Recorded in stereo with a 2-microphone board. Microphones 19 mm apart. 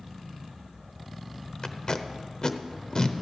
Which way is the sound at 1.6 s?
40° left (ahead or behind).